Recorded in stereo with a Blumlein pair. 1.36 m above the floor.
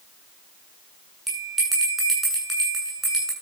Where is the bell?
5° right, 9 m.